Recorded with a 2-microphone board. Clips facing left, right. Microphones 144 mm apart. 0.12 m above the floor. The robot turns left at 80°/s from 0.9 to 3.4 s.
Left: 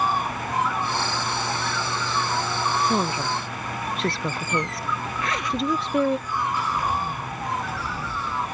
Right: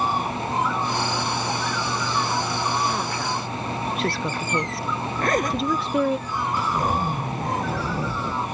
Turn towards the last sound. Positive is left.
turn(degrees=-45)  # may be behind; listen again after turning